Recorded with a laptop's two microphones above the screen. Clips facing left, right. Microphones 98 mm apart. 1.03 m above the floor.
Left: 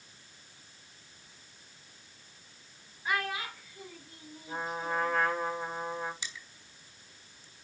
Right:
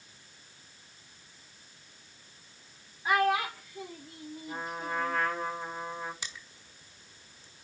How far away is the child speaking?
About 2 m.